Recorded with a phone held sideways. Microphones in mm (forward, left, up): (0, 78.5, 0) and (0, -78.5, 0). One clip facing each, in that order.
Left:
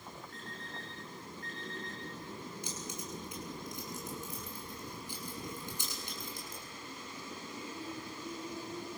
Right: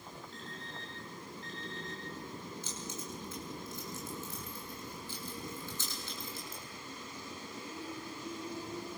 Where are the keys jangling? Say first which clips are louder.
Even; 15° left (ahead or behind), 7.5 m.